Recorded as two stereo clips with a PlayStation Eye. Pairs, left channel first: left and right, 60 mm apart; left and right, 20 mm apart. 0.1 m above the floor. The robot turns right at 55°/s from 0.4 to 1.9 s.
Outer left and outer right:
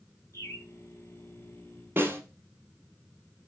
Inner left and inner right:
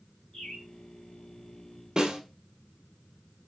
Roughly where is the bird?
Left.